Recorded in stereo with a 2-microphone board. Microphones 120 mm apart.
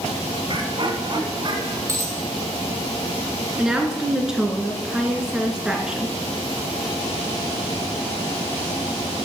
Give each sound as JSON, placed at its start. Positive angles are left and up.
{"t": 0.5, "sound": "laughter", "side_deg": -45, "distance_m": 2.0}
{"t": 1.9, "sound": "a dropped coin", "side_deg": -25, "distance_m": 3.5}
{"t": 3.6, "sound": "a woman speaking", "side_deg": -5, "distance_m": 3.0}